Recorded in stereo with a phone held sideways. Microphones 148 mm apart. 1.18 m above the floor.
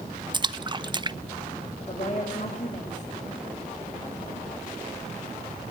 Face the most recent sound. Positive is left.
turn(degrees=50)  # may be behind; listen again after turning